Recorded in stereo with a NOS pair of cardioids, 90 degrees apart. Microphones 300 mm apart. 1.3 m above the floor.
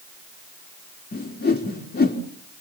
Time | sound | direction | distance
1.1 | a whoosh | 30° left | 3 m